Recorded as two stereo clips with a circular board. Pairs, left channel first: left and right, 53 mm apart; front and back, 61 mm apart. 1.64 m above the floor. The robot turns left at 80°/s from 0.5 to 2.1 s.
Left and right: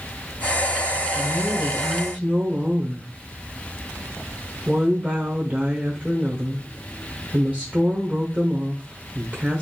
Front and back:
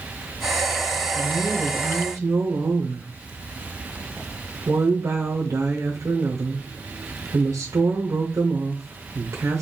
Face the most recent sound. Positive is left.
turn(degrees=-155)